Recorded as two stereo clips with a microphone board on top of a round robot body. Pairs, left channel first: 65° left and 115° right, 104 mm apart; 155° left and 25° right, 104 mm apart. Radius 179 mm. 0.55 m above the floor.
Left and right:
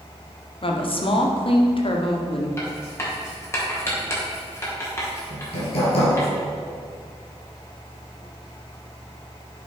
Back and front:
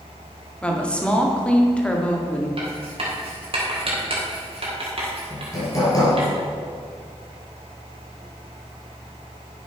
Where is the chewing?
I don't hear chewing.